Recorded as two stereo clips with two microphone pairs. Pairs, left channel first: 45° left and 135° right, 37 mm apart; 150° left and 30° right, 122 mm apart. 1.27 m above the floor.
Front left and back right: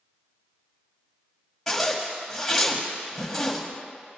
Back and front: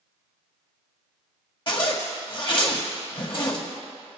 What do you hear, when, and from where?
1.7 s a zipper: 125° left, 1.7 m